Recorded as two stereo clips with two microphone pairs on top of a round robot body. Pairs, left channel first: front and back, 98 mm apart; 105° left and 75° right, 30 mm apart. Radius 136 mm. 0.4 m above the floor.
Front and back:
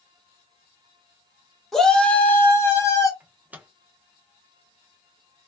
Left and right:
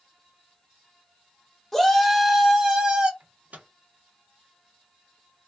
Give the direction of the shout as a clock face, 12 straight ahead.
10 o'clock.